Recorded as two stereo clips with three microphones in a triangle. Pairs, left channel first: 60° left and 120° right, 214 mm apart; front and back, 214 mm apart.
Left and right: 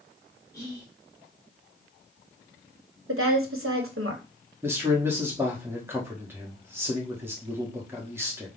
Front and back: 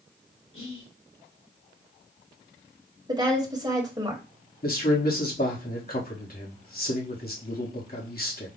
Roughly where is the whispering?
Ahead.